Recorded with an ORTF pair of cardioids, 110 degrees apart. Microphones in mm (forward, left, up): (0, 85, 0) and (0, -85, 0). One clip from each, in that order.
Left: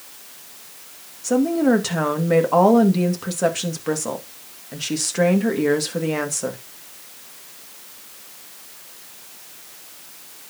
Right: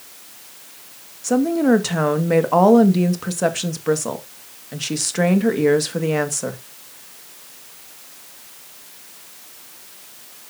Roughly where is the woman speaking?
Ahead.